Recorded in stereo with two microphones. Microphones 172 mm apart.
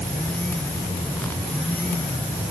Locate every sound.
Only background noise.